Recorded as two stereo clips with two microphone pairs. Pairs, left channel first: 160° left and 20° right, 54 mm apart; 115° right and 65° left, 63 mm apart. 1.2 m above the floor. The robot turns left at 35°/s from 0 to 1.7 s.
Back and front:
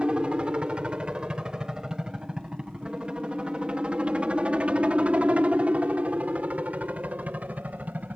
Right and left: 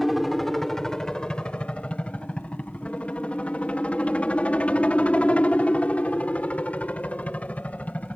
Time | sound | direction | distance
0.0 | a helicopter | 20° right | ?